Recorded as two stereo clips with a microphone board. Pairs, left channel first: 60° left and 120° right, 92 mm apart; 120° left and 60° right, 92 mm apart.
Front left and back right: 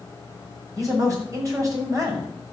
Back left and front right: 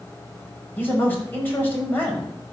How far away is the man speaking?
About 6.5 m.